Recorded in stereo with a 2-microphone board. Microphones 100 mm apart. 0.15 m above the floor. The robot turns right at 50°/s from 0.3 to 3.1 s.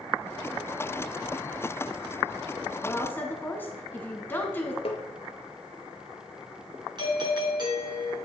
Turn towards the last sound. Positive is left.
turn(degrees=-45)  # may be behind; listen again after turning